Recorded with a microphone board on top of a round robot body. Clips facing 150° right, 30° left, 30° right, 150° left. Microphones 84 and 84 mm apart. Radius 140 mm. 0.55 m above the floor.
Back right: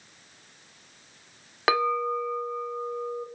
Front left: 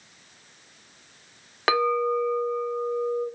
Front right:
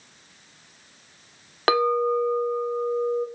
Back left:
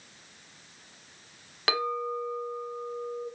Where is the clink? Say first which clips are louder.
Front left 2 dB, front right 10 dB; 65° right, 0.7 m.